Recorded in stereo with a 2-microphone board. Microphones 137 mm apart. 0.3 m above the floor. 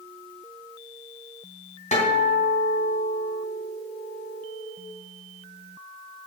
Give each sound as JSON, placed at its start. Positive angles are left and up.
{"t": 1.9, "sound": "a guitar", "side_deg": 60, "distance_m": 3.0}